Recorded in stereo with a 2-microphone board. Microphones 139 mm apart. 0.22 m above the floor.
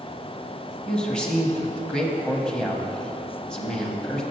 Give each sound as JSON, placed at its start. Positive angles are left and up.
{"t": 0.9, "sound": "a man speaking", "side_deg": 5, "distance_m": 1.0}